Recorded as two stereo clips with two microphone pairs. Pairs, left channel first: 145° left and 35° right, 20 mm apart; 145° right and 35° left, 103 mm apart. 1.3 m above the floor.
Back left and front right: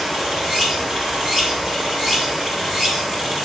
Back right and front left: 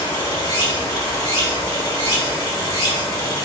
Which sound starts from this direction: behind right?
Running water, at 0.0 s.